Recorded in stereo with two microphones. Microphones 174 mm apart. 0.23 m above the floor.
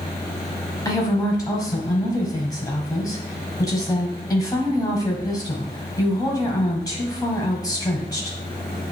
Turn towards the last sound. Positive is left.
turn(degrees=20)  # may be behind; listen again after turning